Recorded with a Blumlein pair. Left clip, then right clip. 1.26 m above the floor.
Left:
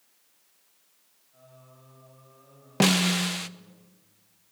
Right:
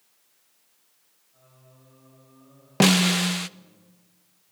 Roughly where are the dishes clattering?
No dishes clattering in this recording.